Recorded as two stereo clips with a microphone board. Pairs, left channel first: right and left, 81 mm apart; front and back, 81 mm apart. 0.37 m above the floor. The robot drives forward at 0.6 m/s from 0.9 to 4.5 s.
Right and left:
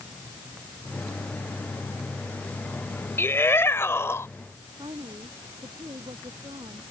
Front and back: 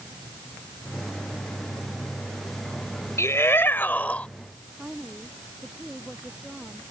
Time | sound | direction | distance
3.2 | a shout | 40° right | ?
4.8 | a woman speaking | 100° left | ?